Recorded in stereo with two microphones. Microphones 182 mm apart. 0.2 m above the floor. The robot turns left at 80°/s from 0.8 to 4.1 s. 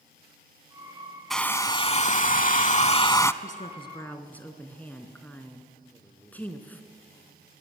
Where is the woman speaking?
65° left, 2.5 m; by 6.8 s 10° left, 2.5 m.